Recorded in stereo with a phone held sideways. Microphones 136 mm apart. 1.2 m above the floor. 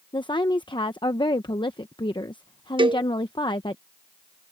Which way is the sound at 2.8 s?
35° right (ahead or behind).